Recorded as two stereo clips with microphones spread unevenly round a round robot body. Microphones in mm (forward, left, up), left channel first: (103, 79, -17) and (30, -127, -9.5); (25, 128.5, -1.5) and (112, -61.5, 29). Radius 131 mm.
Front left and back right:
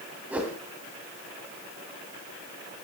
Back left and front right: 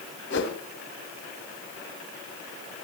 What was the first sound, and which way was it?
A whoosh, 165° left.